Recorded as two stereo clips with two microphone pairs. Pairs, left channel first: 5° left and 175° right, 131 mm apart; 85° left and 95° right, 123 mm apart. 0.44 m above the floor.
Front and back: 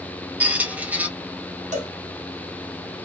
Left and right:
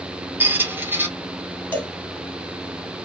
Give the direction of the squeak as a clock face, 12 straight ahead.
4 o'clock.